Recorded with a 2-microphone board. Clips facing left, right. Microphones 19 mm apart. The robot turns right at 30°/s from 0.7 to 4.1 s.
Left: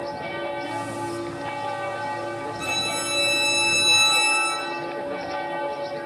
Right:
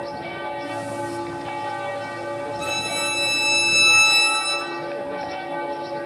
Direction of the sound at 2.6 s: 175° left.